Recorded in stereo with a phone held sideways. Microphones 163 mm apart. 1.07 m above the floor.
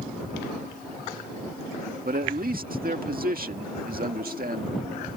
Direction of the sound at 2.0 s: 65° right (ahead or behind).